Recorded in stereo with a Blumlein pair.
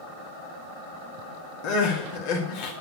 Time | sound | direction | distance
1.6 | crying | 45° left | 1.8 m